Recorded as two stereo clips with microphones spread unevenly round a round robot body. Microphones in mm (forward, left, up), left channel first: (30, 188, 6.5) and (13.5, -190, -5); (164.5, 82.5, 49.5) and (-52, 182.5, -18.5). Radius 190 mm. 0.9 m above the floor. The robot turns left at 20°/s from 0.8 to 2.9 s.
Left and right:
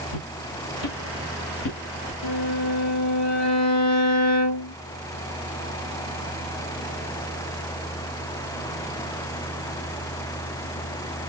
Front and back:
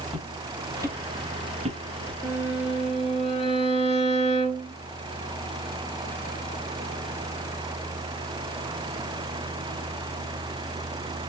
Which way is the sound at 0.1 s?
60° left.